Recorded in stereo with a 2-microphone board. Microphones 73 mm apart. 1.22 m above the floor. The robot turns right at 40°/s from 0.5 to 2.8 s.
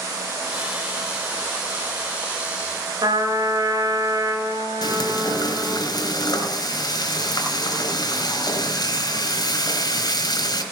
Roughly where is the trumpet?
Right.